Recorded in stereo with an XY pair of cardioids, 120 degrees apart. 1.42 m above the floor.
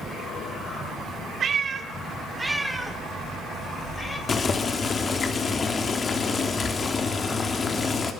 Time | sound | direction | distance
1.4 | a cat meowing | 40° right | 2 m
4.3 | boiling | 35° left | 3 m